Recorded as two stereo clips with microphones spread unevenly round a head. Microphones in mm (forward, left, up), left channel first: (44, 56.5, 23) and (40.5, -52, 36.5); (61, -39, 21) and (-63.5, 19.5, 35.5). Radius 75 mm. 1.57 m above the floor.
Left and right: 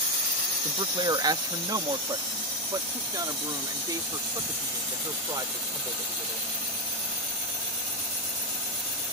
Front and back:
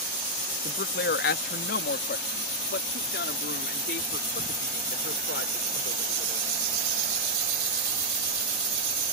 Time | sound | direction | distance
0.7 | a man speaking | 45° right | ?